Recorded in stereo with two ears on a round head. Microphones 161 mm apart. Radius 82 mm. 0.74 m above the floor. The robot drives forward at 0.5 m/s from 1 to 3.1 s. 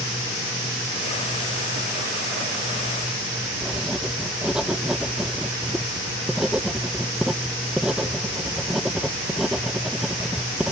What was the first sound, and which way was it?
Writing, 5° right (ahead or behind).